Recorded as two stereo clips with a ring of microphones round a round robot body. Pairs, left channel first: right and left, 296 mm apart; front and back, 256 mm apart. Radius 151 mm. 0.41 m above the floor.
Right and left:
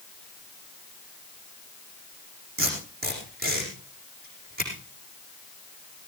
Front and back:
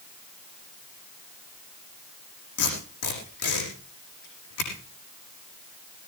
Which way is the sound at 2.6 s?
30° left.